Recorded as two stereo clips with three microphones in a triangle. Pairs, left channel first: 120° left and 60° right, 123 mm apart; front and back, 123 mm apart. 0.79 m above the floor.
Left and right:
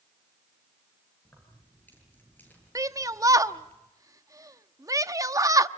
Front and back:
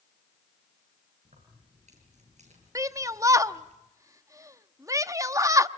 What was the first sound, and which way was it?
Keys jangling, 165° right.